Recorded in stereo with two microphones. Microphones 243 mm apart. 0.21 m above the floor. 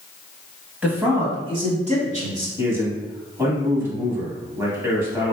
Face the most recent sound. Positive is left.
turn(degrees=-10)  # may be behind; listen again after turning